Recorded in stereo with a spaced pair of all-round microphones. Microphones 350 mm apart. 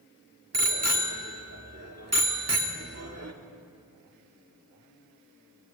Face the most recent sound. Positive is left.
turn(degrees=-45)  # may be behind; listen again after turning